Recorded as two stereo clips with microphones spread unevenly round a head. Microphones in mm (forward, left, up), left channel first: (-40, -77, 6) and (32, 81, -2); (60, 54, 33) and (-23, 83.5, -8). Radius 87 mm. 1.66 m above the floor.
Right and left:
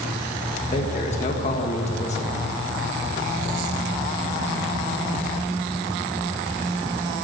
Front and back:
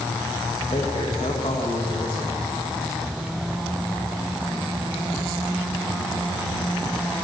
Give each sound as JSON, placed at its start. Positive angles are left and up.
{"t": 0.7, "sound": "a man speaking", "azimuth_deg": -65, "distance_m": 2.0}